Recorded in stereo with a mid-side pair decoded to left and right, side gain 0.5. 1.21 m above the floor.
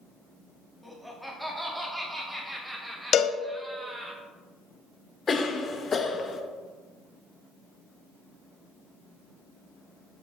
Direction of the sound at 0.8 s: Straight ahead.